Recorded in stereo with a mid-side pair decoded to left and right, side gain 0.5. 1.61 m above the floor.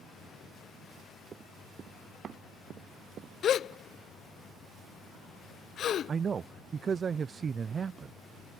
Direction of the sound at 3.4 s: 55° left.